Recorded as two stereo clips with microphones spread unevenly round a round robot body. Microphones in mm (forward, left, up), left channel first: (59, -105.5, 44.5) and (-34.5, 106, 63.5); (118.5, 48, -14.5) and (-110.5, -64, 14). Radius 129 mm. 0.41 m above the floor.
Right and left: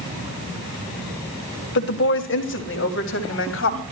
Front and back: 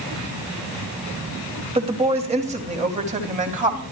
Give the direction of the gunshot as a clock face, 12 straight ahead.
I don't hear a gunshot.